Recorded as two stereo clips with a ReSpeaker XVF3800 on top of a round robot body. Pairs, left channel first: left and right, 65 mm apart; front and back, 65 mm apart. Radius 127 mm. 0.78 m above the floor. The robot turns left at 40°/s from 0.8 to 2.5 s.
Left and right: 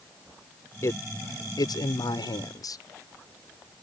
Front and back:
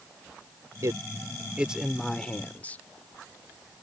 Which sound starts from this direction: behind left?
A man speaking, at 0.8 s.